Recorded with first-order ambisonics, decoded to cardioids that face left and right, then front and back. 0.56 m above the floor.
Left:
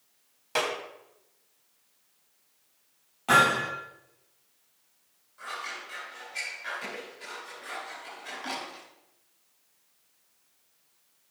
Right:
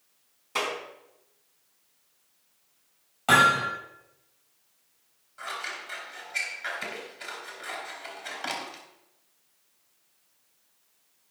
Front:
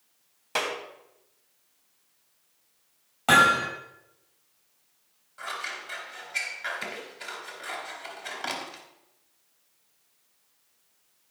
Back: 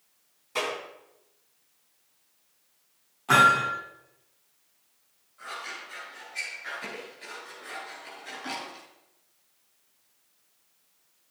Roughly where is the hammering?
Ahead.